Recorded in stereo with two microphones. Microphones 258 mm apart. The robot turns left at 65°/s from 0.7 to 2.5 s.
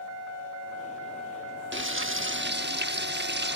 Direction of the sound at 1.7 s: 70° right.